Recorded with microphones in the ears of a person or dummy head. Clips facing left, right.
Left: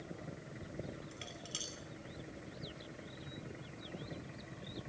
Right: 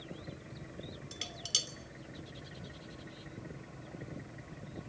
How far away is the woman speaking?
I don't hear a woman speaking.